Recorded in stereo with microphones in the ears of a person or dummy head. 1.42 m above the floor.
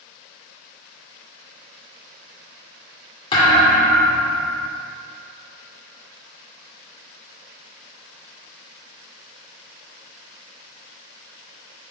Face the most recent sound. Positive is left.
turn(degrees=25)  # may be behind; listen again after turning